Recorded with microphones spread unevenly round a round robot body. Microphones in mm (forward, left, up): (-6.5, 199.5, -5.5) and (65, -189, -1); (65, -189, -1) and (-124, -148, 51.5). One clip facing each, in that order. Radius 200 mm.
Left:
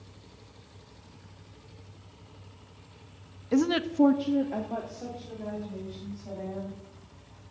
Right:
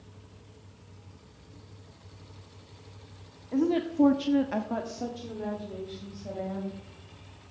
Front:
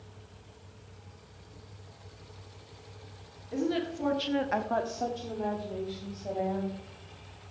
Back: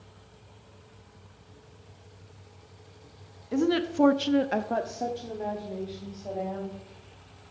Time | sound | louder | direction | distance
3.5 | a woman speaking | left 1 dB, back 5 dB | 120° left | 1.0 m